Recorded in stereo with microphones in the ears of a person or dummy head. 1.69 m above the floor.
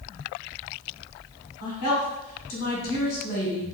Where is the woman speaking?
50° left (ahead or behind), 1.4 m.